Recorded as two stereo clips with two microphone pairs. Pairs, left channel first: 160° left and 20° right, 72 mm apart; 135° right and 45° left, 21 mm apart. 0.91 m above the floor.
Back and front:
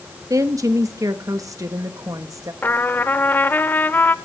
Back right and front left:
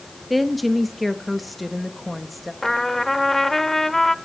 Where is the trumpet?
160° left, 0.6 m.